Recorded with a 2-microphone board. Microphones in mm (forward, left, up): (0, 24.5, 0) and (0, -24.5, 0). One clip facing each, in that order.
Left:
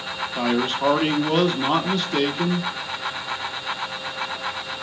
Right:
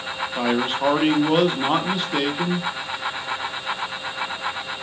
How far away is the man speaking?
About 0.7 m.